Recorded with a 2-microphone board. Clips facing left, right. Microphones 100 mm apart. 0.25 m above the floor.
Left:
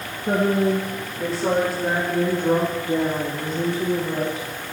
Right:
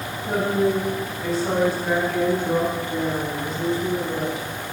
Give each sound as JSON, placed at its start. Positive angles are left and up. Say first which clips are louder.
{"t": 0.3, "sound": "a woman speaking", "louder": "left 2 dB", "side_deg": 65, "distance_m": 3.5}